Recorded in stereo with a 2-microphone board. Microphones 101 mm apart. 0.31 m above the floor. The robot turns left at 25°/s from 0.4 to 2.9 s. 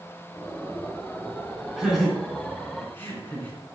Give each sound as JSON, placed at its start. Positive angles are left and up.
{"t": 1.8, "sound": "laughter", "side_deg": -10, "distance_m": 3.0}